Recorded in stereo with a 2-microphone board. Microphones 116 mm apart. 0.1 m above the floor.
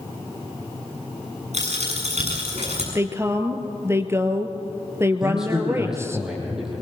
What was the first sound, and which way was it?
A dropped coin, 75° right (ahead or behind).